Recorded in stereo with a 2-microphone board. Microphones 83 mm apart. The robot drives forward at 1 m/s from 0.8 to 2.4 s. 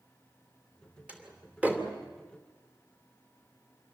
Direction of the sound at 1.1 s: 15° right (ahead or behind).